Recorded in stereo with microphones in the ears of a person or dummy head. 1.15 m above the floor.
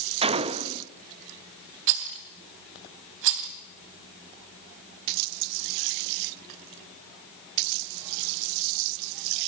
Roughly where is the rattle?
Right.